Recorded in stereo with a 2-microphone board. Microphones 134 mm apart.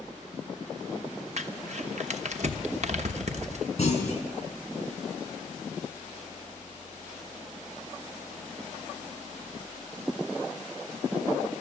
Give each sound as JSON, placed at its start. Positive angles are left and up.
{"t": 1.4, "sound": "crumpling", "side_deg": -60, "distance_m": 1.0}
{"t": 3.8, "sound": "a clunk", "side_deg": 50, "distance_m": 5.0}